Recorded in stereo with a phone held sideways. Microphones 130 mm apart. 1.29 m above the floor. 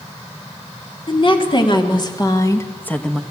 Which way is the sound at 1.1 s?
45° left (ahead or behind).